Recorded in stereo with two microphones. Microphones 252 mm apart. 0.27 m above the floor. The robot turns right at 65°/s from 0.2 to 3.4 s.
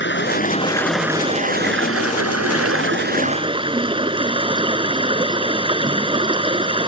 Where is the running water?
130° left; by 6.9 s 20° right.